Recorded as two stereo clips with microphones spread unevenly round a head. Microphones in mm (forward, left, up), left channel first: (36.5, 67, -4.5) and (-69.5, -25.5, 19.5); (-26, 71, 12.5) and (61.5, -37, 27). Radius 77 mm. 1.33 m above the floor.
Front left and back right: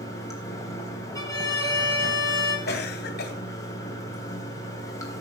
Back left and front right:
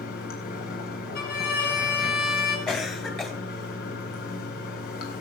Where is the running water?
110° left, 3.5 m.